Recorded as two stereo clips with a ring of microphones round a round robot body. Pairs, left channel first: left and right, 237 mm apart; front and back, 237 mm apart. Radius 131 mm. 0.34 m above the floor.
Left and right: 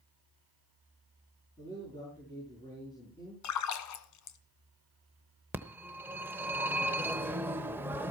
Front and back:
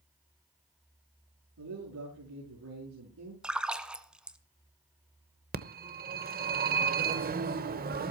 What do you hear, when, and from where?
1.6 s a man speaking: 165° left, 6 m
3.4 s a splash: 95° left, 1.4 m
5.5 s a phone ringing: 165° right, 1.0 m